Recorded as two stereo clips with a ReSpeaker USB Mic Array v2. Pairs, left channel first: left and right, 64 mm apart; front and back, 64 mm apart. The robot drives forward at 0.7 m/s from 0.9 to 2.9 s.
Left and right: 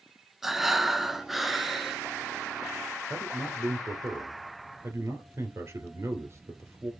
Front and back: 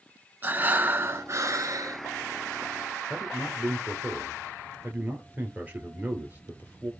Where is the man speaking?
120° right, 2 m.